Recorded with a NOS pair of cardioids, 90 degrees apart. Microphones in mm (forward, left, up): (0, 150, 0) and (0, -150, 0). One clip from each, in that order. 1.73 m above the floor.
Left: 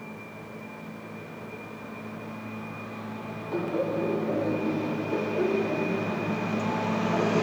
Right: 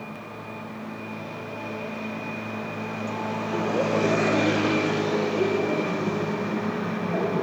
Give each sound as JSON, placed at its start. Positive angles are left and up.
{"t": 3.5, "sound": "laughter", "azimuth_deg": -20, "distance_m": 1.6}